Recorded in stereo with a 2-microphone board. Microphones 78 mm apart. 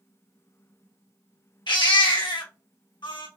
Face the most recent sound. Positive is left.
turn(degrees=75)  # may be behind; listen again after turning